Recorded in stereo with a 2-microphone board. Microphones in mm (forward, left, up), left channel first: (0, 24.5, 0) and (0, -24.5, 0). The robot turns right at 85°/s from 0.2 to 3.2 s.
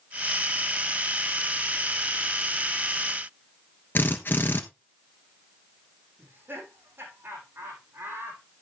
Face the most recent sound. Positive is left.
turn(degrees=-50)  # may be behind; listen again after turning